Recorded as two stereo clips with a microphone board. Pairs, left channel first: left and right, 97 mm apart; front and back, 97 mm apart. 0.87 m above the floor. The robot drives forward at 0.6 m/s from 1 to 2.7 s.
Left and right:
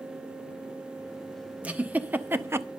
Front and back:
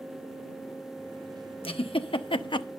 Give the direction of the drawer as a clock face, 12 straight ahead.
I don't hear a drawer.